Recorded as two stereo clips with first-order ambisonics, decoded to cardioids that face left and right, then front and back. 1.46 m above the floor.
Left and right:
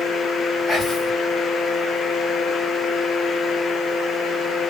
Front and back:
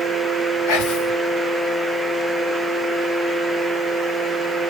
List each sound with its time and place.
0.7 s whispering: 5° right, 1.9 m